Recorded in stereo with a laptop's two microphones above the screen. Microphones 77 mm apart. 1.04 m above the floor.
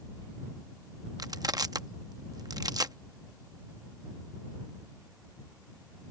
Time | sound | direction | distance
1.2 | crushing | 55° right (ahead or behind) | ?